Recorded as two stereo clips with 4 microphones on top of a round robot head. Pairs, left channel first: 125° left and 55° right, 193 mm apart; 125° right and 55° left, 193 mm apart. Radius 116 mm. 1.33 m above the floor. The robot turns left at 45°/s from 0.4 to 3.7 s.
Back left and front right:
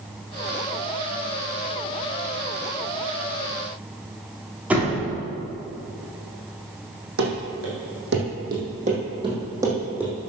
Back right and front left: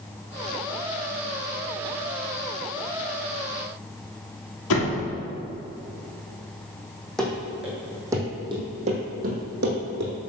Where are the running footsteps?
40° right, 3 m; by 10.1 s 30° left, 2.5 m.